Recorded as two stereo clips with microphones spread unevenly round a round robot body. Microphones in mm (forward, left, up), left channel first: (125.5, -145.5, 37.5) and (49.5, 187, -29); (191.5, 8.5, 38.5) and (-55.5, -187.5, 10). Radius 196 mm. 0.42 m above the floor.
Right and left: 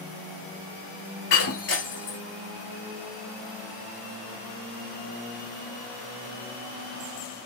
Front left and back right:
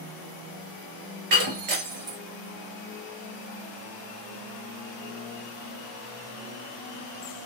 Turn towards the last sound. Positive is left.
turn(degrees=-120)